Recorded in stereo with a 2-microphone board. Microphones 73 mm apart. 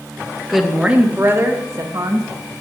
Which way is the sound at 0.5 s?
Centre (ahead or behind).